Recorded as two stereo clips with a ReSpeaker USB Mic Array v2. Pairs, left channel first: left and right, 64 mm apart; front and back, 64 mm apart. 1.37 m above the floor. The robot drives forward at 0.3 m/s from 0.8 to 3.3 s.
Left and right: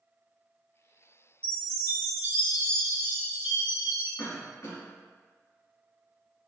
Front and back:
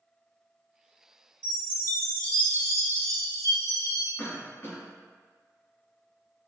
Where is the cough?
65° left, 1.7 m.